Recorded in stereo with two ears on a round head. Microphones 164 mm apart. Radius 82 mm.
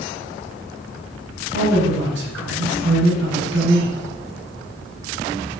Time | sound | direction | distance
1.5 | a man speaking | 70° right (ahead or behind) | 5 m